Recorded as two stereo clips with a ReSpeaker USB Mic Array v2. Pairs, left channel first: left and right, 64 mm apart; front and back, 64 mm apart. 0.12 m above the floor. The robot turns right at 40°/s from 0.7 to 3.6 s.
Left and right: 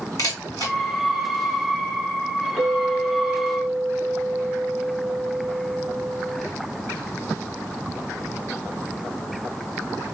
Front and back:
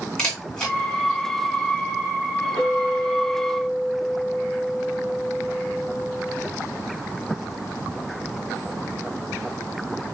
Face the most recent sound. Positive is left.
turn(degrees=-150)